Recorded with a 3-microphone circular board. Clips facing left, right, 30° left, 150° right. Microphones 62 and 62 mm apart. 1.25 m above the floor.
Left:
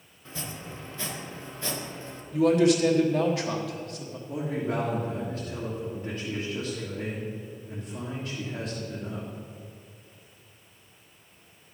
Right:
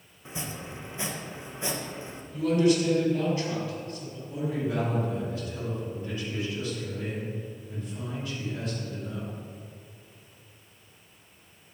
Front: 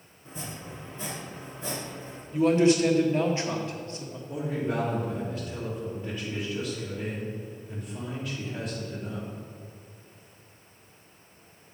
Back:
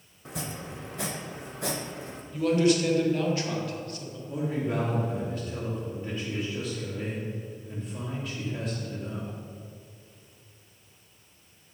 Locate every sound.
0.2 s chopping: 160° right, 0.8 m
2.3 s a man speaking: 95° left, 1.2 m
4.3 s a man speaking: 130° left, 2 m